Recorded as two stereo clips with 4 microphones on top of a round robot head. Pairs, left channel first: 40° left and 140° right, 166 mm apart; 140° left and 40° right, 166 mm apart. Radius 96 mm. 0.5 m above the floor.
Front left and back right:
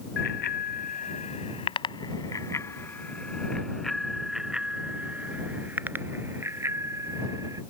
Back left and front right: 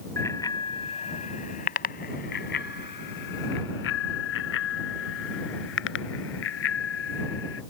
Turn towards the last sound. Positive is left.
turn(degrees=145)